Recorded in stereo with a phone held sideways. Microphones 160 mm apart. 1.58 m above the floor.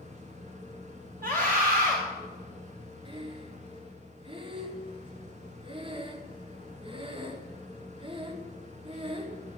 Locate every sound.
0.0 s a machine running: 45° right (ahead or behind), 1.4 m
1.2 s a scream: 60° right (ahead or behind), 1.3 m
3.0 s breathing: 35° right (ahead or behind), 0.9 m